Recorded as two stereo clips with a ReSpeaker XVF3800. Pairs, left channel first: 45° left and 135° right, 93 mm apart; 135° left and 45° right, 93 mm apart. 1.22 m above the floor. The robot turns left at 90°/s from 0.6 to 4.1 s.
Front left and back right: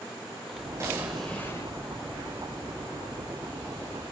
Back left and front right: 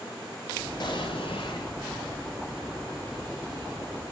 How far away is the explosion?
About 2.5 m.